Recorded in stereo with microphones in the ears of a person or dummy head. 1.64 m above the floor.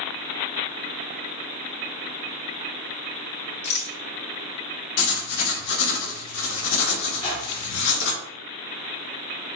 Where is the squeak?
25° left (ahead or behind), 1.3 m.